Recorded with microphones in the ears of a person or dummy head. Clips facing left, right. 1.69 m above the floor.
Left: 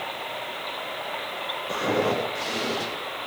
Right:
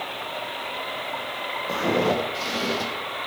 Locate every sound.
1.7 s footsteps: 60° right (ahead or behind), 4 m; by 2.9 s 65° right (ahead or behind), 4 m